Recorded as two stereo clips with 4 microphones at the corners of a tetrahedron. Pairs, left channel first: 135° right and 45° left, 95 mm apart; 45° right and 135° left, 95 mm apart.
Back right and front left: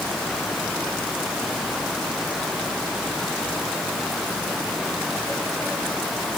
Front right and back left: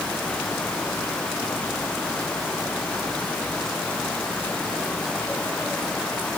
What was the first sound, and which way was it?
Only background noise.